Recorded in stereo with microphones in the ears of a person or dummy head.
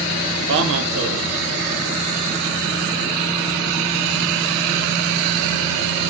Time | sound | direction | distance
0.5 | a man speaking | 70° right (ahead or behind) | 1.1 m